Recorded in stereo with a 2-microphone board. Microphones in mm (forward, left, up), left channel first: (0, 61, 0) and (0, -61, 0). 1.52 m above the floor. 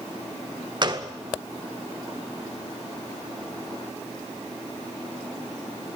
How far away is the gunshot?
About 1.7 m.